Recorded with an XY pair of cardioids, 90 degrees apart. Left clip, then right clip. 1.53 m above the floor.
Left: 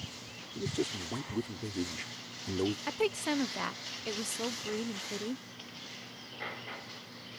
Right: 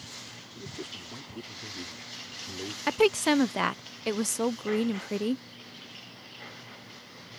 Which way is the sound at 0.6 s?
60° left.